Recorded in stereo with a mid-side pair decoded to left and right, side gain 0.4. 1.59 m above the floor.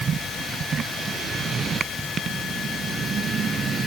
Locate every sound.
Only background noise.